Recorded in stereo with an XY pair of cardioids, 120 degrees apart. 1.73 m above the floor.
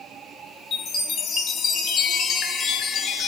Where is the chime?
55° left, 0.6 m.